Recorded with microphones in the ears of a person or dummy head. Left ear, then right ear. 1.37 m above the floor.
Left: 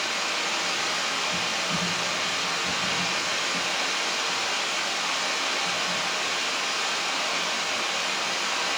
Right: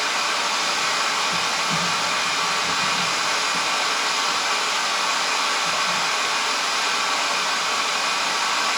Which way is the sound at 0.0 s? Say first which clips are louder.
Right 5 dB; 45° right (ahead or behind).